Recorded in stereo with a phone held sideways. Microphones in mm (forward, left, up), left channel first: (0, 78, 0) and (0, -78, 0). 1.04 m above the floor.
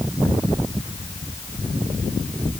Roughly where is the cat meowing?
No cat meowing in this recording.